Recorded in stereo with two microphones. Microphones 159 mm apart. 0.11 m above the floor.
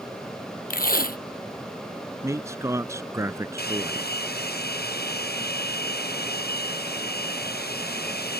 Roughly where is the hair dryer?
Left.